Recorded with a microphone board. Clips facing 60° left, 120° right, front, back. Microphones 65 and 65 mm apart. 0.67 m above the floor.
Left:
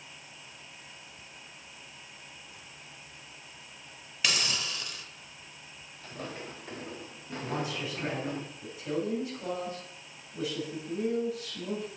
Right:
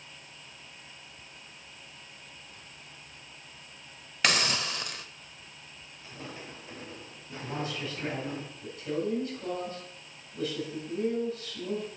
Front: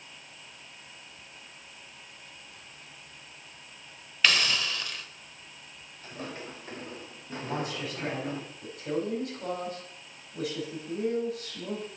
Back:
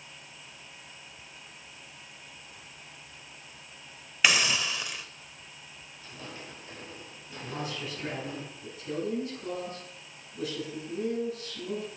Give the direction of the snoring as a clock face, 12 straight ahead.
I don't hear snoring.